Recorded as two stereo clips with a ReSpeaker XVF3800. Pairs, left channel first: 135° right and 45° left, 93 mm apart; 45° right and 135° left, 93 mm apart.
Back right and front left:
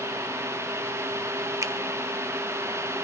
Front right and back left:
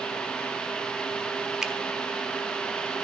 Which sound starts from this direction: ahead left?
A finger snap, at 1.6 s.